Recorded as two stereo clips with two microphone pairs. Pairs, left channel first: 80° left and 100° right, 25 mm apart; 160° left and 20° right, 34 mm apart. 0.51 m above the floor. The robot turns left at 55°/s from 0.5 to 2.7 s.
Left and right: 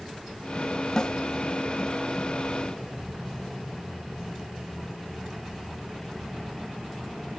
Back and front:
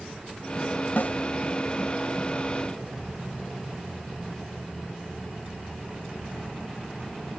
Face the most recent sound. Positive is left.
turn(degrees=45)